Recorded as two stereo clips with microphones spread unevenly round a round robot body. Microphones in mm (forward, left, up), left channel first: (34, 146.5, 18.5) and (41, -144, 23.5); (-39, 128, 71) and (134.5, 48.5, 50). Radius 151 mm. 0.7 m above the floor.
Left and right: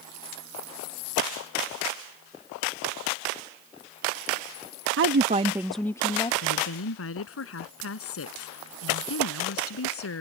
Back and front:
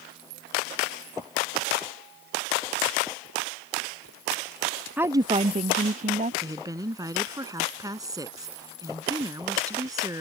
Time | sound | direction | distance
5.0 | a woman speaking | 95° right | ?
6.4 | a woman speaking | 50° left | ?